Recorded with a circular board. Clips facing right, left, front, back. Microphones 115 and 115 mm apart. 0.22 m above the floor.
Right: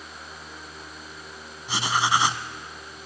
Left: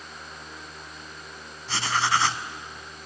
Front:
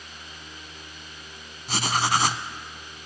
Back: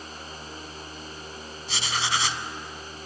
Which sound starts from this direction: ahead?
Writing, at 1.7 s.